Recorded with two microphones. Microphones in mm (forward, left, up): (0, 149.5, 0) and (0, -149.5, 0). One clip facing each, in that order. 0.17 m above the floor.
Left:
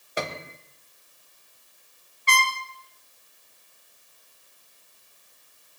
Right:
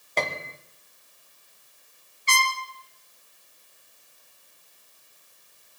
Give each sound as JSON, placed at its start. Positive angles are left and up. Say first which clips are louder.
{"t": 0.2, "sound": "a piano", "louder": "right 1 dB", "side_deg": 10, "distance_m": 1.1}
{"t": 2.3, "sound": "a trumpet", "louder": "left 1 dB", "side_deg": 65, "distance_m": 2.5}